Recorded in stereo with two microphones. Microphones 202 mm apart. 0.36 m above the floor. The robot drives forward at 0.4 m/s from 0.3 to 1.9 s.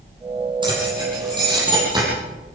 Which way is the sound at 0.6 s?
20° right (ahead or behind).